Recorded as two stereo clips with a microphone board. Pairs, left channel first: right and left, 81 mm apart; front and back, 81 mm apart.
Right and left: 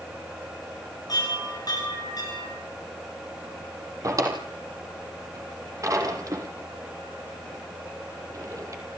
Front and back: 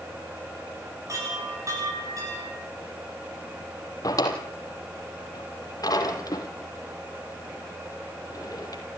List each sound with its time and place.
1.1 s a chime: 130° right, 9.5 m
4.0 s a drawer: 40° left, 3 m